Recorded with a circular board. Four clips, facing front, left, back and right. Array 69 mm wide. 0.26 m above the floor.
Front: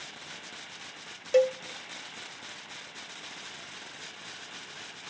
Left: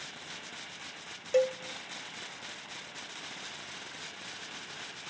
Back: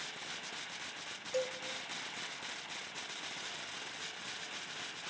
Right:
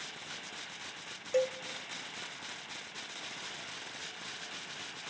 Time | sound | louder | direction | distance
1.3 | a cowbell | left 4 dB, front 14 dB | 15° left | 0.5 m